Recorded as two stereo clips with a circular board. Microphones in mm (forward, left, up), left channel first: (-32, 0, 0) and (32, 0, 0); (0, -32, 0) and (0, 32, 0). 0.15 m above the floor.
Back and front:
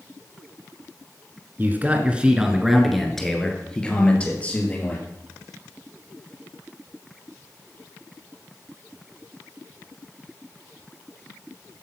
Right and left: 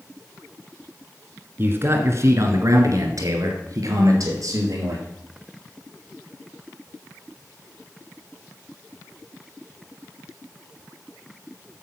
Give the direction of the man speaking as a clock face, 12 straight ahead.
10 o'clock.